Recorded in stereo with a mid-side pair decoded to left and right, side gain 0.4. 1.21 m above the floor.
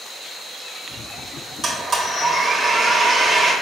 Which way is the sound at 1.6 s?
50° right.